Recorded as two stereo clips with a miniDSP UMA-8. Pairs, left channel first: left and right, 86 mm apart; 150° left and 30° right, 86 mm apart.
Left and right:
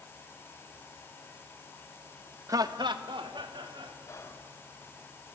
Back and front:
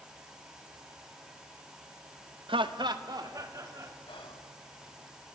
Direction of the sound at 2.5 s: 40° right.